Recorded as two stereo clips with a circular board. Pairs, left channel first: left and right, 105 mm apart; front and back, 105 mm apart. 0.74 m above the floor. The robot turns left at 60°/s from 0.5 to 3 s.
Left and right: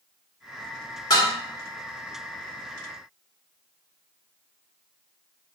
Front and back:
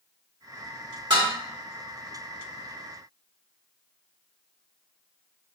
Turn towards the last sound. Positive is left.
turn(degrees=25)